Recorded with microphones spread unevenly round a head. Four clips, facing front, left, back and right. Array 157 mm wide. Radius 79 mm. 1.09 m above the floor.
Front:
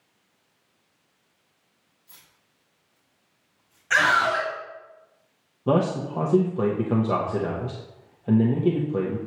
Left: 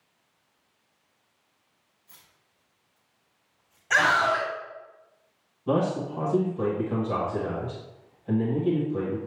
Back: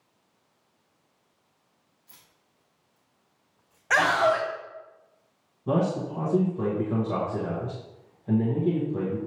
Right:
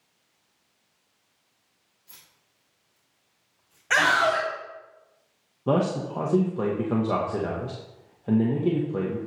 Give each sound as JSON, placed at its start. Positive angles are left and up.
{"t": 2.1, "sound": "keys jangling", "azimuth_deg": -125, "distance_m": 2.0}
{"t": 3.9, "sound": "a scream", "azimuth_deg": -160, "distance_m": 2.5}
{"t": 5.7, "sound": "a man speaking", "azimuth_deg": -40, "distance_m": 1.1}